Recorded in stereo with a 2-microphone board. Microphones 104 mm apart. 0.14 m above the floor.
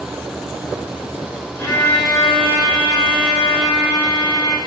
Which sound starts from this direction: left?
A violin, at 1.6 s.